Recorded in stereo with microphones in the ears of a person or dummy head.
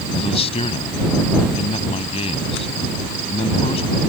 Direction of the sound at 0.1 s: 30° left (ahead or behind).